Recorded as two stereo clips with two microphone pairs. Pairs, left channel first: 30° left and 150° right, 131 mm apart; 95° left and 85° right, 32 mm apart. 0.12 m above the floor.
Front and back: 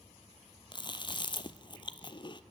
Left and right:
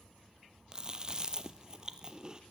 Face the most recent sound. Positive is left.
turn(degrees=-25)